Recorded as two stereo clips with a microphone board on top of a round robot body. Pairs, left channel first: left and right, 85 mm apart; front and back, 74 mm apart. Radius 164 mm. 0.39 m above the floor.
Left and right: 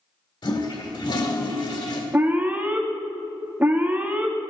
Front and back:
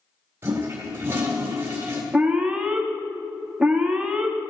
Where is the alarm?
120° right, 1.8 m.